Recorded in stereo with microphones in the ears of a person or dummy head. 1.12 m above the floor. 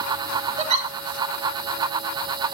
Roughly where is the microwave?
No microwave in this recording.